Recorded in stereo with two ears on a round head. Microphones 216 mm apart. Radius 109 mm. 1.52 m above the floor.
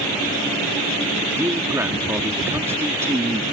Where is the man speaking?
10° right (ahead or behind).